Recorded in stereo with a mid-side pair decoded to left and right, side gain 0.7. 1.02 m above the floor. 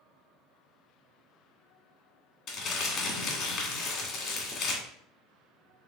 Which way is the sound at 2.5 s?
55° left.